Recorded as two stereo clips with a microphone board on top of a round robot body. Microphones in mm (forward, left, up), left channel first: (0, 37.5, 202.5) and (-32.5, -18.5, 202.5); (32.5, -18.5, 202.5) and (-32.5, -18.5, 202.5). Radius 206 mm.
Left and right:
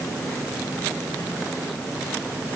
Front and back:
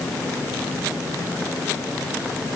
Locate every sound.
Only background noise.